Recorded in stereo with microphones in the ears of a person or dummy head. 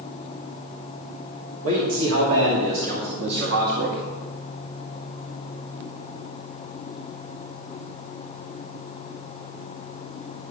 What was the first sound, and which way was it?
A man speaking, 85° right.